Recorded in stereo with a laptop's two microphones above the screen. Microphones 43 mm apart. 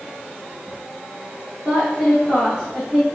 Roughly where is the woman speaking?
Right.